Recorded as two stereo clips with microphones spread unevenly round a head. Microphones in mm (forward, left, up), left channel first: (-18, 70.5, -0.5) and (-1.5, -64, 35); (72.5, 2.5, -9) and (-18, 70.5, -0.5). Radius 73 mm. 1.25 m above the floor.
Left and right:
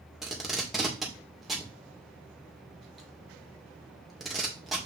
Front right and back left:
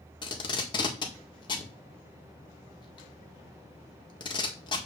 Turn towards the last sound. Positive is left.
turn(degrees=10)